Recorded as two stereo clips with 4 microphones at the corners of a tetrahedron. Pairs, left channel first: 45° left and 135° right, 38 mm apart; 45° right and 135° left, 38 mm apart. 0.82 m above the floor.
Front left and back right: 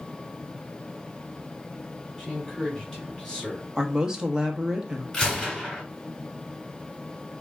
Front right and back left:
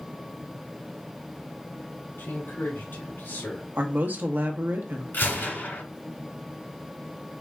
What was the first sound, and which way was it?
A man speaking, 30° right.